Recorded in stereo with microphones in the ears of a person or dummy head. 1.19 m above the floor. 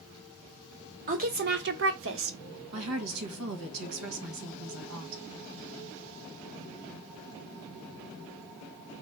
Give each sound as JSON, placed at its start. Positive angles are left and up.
{"t": 1.1, "sound": "a woman speaking", "side_deg": -35, "distance_m": 0.9}
{"t": 2.7, "sound": "a woman speaking", "side_deg": -85, "distance_m": 1.1}